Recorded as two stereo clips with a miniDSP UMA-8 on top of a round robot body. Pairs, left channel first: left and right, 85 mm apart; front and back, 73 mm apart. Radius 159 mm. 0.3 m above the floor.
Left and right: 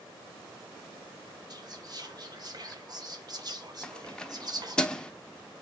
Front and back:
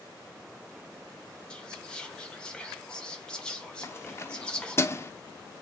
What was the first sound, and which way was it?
Whispering, 75° right.